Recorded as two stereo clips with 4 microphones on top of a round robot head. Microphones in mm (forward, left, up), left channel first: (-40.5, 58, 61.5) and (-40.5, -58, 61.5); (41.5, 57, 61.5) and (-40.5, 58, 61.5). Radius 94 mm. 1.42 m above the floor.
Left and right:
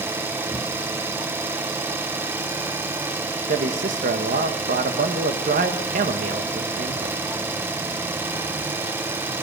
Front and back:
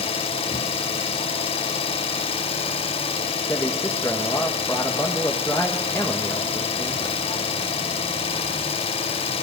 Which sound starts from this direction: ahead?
An engine running, at 0.0 s.